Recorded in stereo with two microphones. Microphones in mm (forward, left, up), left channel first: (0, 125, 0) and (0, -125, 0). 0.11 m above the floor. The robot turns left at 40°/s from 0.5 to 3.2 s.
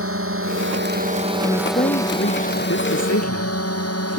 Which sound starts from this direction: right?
A drone, at 0.0 s.